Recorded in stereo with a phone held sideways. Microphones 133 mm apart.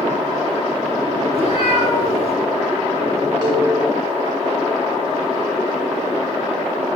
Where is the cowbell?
35° right (ahead or behind), 4 m.